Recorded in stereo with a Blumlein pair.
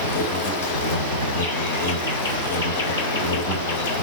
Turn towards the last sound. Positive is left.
turn(degrees=60)